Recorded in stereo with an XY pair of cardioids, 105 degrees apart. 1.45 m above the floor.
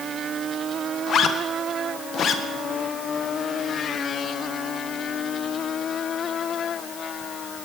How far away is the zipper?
About 1.2 m.